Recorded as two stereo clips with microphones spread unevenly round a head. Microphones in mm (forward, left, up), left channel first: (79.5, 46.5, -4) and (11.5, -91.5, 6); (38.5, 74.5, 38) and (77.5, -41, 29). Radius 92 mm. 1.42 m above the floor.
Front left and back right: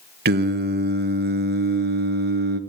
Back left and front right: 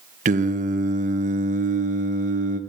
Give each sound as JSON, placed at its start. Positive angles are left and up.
{"t": 0.2, "sound": "singing", "azimuth_deg": -100, "distance_m": 1.6}